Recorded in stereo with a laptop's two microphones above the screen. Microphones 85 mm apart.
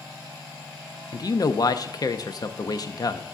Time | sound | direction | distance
1.1 | a man speaking | 50° left (ahead or behind) | 0.7 m